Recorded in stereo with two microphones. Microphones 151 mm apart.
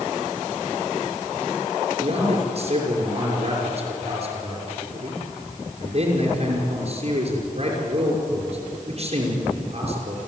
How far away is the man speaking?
About 5.5 m.